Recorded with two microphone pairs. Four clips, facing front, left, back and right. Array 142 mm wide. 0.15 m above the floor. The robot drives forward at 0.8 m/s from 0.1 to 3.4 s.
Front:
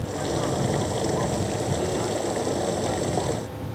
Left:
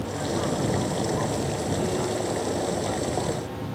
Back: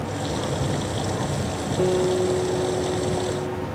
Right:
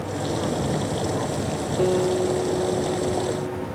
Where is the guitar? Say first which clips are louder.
Right 10 dB, back 10 dB; 120° right, 2 m; by 3.7 s 140° right, 3 m.